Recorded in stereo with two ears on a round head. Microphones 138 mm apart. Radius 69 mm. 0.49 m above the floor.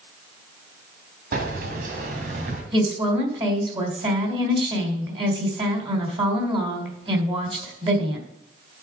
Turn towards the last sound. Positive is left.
turn(degrees=-30)  # may be behind; listen again after turning